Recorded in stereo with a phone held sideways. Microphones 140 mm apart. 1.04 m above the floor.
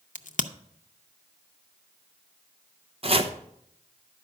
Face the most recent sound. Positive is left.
turn(degrees=-45)  # may be behind; listen again after turning